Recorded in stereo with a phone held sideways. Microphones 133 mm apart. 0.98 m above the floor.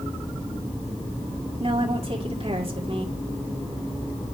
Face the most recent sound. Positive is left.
turn(degrees=-50)  # may be behind; listen again after turning